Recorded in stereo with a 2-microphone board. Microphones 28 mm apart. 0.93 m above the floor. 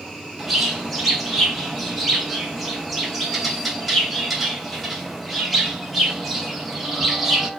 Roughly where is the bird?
Centre.